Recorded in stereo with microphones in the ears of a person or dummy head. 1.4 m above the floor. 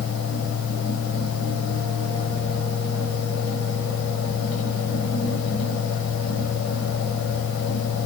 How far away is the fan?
About 1.0 m.